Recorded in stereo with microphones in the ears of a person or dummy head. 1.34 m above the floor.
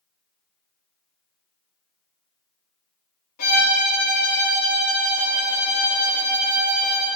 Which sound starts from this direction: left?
A violin, at 3.4 s.